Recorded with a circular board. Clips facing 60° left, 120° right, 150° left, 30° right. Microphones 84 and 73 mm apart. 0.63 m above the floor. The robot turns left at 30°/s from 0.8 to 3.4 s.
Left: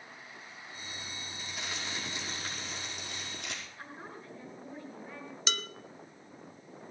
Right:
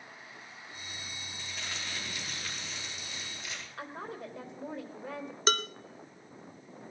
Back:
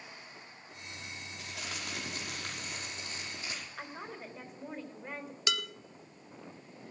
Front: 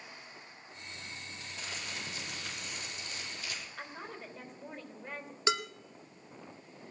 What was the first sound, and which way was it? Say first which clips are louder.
Crumpling: left 1 dB, back 2 dB; 150° left.